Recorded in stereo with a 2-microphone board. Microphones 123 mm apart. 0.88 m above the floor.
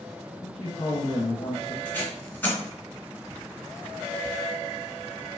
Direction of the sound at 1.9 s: 15° left (ahead or behind).